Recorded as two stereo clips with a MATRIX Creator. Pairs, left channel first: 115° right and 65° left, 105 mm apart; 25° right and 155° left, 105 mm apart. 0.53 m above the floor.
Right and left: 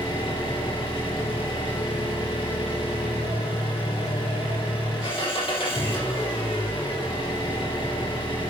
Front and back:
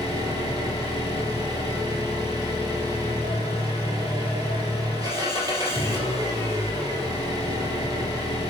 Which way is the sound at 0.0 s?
150° right.